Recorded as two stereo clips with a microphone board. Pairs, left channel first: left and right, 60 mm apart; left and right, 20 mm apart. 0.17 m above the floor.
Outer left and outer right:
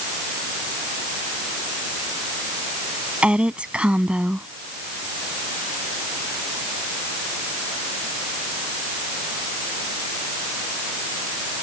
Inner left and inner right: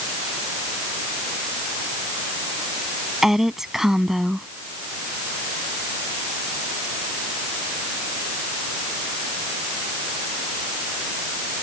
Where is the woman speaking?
20° right (ahead or behind).